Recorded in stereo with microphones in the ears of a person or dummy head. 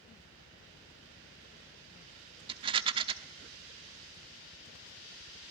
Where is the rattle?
30° right (ahead or behind), 1.1 m.